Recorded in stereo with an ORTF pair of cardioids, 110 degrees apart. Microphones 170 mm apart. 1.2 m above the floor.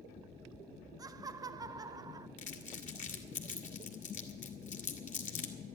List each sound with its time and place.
1.0 s laughter: 20° right, 0.9 m
2.4 s crumpling: 45° left, 1.8 m